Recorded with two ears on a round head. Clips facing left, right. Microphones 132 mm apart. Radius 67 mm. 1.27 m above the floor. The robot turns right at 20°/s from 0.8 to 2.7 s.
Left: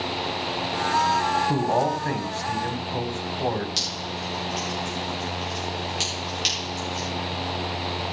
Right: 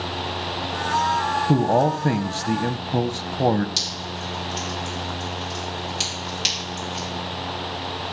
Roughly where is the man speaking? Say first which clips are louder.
Right 4 dB; right.